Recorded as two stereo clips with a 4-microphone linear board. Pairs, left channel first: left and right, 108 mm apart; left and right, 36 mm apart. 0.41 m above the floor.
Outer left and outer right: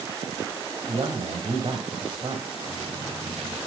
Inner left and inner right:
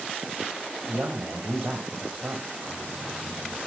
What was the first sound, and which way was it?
A man speaking, 45° right (ahead or behind).